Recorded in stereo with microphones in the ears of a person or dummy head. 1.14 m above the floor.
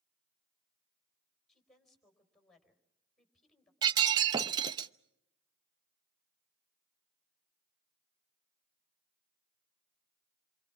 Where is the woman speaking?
5° left (ahead or behind), 4.5 m.